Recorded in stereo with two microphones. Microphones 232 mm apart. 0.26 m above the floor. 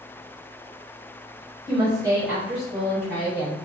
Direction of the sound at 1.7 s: 20° right (ahead or behind).